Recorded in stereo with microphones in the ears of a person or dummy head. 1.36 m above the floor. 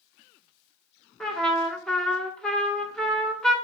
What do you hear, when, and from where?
1.2 s a trumpet: centre (ahead or behind), 0.6 m